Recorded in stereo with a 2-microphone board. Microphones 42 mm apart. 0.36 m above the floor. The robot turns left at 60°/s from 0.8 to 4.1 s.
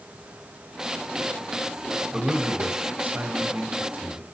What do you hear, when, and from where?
2.1 s a man speaking: 20° right, 1.8 m; by 4.2 s 140° right, 1.8 m